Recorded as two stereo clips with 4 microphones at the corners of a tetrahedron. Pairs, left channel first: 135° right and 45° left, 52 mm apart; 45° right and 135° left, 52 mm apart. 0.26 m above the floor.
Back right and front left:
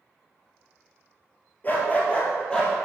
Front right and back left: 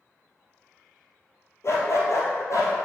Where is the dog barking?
80° right, 2 m; by 2.7 s 55° right, 3 m.